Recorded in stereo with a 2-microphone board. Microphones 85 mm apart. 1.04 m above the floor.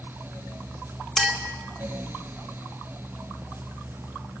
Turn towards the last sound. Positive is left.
turn(degrees=0)  # may be behind; listen again after turning